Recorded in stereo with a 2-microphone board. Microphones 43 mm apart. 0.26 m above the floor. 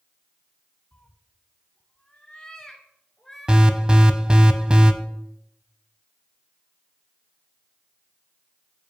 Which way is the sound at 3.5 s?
25° right (ahead or behind).